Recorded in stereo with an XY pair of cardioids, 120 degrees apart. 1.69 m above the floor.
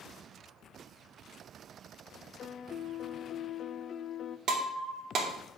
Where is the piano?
45° left, 0.6 m.